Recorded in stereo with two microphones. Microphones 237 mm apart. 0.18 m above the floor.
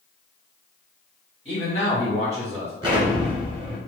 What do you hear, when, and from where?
1.4 s a man speaking: 30° right (ahead or behind), 1.6 m
2.8 s an explosion: 20° right (ahead or behind), 1.1 m